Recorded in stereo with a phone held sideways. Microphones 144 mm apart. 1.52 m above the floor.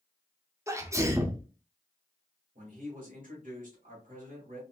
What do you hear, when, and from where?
0.7 s a sneeze: 20° right (ahead or behind), 0.6 m
2.5 s a man speaking: 70° right (ahead or behind), 2 m